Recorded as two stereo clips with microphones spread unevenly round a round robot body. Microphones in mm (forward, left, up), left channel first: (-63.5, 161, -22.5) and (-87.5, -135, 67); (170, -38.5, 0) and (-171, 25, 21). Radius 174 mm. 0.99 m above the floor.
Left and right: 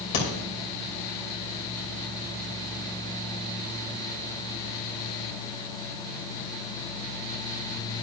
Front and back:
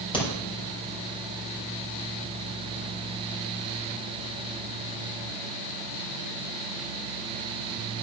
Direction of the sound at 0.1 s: 65° left.